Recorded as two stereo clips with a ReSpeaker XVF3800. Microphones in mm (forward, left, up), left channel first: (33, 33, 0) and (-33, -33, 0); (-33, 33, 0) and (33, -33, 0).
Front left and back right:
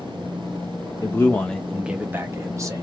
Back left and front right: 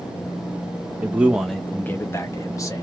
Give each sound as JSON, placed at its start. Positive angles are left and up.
{"t": 1.0, "sound": "a man speaking", "azimuth_deg": 15, "distance_m": 0.6}